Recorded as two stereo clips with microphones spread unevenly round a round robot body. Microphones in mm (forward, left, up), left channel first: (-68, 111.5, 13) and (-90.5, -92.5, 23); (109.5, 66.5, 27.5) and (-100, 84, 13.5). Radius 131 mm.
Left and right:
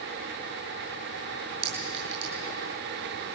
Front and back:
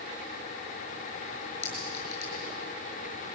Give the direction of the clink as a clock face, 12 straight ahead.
3 o'clock.